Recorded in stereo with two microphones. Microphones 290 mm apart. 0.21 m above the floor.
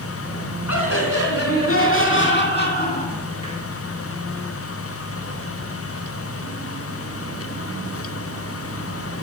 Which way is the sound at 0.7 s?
55° left (ahead or behind).